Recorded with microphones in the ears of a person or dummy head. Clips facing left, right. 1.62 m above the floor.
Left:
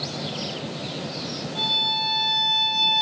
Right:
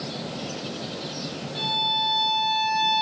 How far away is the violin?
About 1.6 m.